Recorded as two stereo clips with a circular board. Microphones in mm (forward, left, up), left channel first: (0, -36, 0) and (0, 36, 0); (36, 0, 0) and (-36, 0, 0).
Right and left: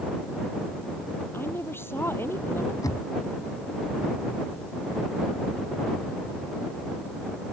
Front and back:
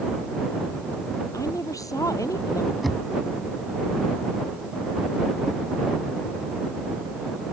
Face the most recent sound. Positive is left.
turn(degrees=-90)